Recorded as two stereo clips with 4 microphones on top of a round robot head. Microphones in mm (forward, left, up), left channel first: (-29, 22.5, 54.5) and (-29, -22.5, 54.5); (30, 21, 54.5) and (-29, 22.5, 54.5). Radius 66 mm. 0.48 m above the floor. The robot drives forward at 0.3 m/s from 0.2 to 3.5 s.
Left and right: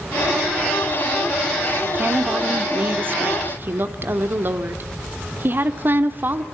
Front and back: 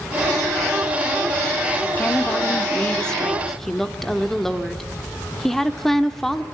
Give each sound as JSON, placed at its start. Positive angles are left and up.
{"t": 1.8, "sound": "a woman speaking", "azimuth_deg": -55, "distance_m": 1.4}